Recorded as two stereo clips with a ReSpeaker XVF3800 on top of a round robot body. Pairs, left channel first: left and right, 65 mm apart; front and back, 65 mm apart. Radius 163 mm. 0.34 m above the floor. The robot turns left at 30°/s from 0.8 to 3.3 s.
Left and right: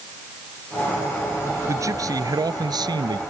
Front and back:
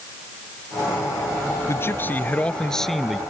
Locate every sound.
1.7 s a man speaking: 50° right; by 3.2 s 95° right